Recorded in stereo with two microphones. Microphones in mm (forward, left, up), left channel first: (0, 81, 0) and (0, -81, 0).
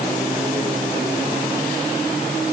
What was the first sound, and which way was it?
Only background noise.